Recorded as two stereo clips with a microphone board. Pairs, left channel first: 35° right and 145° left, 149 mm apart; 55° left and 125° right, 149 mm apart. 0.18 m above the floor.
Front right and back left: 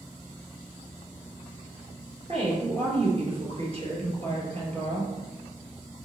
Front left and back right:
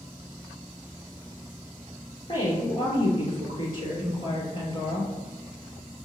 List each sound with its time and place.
2.3 s a woman speaking: 105° left, 3 m